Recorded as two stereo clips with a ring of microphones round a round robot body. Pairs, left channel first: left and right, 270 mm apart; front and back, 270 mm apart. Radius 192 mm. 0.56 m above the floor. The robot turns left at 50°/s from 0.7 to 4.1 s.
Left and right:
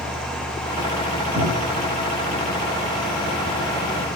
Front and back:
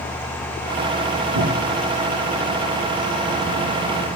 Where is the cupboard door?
160° right, 6 m; by 1.9 s 175° left, 6 m.